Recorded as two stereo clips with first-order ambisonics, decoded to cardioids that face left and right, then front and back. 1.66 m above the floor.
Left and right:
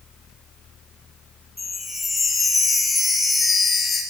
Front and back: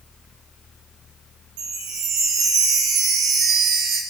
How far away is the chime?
About 1.5 m.